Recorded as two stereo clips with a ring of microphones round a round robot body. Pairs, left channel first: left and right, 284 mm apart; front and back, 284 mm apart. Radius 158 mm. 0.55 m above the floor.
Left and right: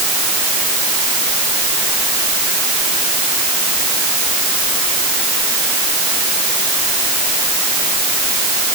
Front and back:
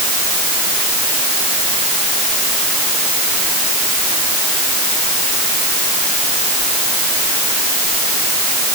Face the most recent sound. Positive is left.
No sound to turn to.